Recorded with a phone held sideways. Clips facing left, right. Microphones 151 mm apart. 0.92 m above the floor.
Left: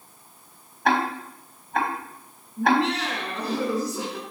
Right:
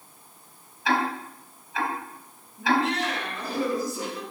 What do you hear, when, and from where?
0.8 s ticking: 55° left (ahead or behind), 3.5 m
2.6 s laughter: 80° left, 9 m